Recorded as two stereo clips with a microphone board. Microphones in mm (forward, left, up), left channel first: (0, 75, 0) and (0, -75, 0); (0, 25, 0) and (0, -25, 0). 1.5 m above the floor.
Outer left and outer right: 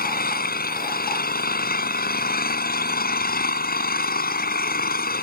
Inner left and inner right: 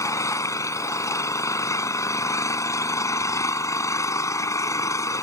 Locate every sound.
0.0 s an engine running: 75° left (ahead or behind)